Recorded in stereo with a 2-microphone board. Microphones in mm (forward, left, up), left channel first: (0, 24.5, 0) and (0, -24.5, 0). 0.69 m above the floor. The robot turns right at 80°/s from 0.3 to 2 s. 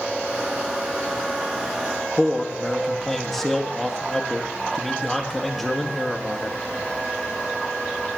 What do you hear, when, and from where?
2.2 s a man speaking: 5° left (ahead or behind), 0.8 m